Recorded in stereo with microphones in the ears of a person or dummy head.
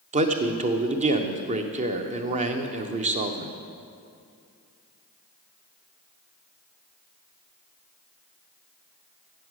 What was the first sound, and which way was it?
A man speaking, 30° right (ahead or behind).